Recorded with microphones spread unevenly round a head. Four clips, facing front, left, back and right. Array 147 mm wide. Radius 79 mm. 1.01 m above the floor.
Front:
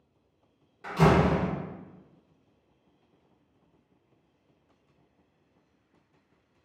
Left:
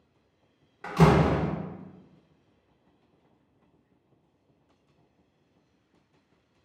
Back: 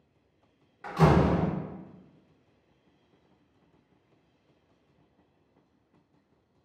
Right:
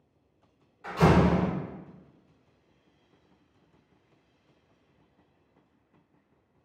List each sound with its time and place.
0.8 s a door slam: 90° left, 0.9 m